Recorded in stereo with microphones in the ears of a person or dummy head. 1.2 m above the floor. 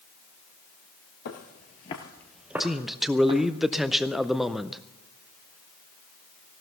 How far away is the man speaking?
About 0.5 m.